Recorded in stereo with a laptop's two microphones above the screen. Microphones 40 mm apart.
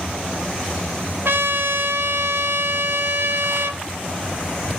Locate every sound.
1.2 s a trumpet: 70° right (ahead or behind), 1.0 m